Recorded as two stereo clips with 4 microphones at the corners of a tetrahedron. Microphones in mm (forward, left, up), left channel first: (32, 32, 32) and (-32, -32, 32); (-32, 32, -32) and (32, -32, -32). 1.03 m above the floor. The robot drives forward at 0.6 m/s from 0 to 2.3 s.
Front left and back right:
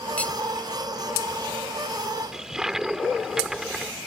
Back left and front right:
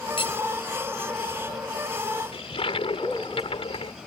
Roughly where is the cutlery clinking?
Behind left.